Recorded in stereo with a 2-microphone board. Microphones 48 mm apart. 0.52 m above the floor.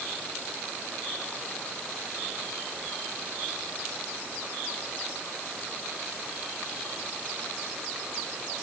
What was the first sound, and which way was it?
Only background noise.